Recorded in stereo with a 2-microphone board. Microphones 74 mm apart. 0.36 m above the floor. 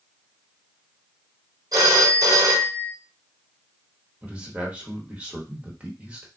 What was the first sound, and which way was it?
A phone ringing, 60° right (ahead or behind).